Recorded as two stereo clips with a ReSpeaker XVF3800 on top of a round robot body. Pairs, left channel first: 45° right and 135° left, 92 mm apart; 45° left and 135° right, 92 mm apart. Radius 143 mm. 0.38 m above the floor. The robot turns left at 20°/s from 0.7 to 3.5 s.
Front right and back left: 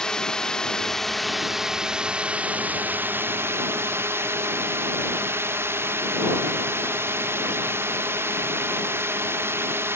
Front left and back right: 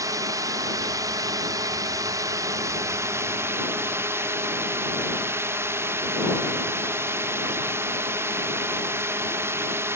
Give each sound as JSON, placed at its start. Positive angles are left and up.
{"t": 0.0, "sound": "a drone", "azimuth_deg": -120}